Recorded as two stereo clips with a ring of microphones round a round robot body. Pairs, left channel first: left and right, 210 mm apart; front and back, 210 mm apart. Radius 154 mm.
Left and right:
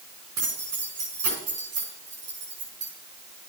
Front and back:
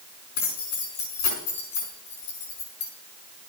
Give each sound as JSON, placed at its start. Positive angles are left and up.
{"t": 0.4, "sound": "keys jangling", "azimuth_deg": -10, "distance_m": 5.0}